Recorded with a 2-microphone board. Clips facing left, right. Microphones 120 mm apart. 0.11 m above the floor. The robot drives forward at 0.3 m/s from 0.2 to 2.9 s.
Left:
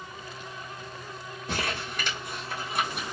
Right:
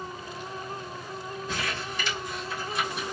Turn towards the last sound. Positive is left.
turn(degrees=55)  # may be behind; listen again after turning